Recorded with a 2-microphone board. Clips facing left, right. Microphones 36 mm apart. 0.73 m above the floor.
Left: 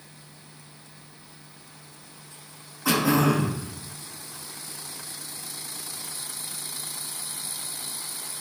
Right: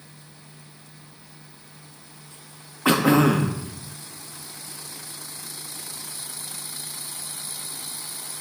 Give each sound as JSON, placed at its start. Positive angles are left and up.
{"t": 2.9, "sound": "throat clearing", "side_deg": -40, "distance_m": 0.9}